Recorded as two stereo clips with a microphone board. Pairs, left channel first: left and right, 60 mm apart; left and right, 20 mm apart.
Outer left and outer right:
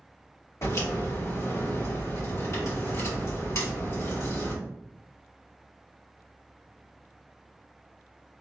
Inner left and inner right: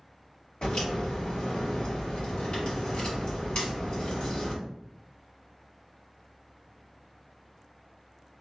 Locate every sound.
0.6 s a crack: 60° left (ahead or behind), 1.8 m